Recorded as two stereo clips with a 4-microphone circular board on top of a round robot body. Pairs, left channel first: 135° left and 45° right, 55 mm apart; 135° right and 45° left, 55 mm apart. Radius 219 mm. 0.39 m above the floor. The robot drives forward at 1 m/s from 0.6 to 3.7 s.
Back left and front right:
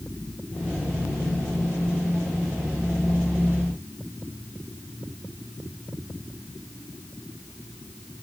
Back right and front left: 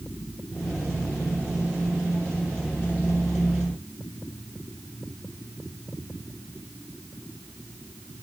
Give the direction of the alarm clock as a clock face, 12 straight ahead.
I don't hear an alarm clock.